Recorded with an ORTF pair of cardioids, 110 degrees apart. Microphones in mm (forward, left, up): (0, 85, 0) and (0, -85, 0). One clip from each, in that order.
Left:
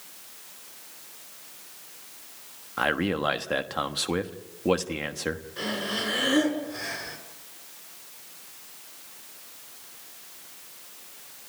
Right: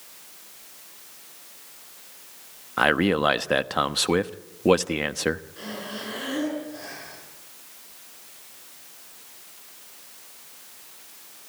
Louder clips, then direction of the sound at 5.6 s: Left 5 dB; 45° left.